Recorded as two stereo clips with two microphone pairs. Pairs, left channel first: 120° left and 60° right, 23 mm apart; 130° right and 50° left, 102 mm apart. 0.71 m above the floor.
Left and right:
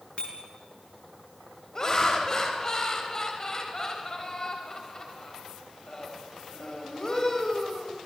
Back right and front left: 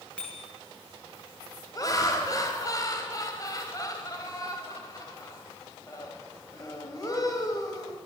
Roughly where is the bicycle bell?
Behind left.